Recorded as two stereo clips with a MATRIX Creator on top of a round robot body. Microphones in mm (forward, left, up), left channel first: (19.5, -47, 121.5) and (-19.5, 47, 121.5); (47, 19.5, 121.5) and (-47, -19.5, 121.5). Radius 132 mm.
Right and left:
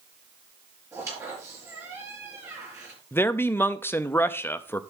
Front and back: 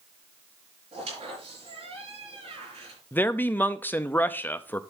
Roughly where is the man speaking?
Ahead right.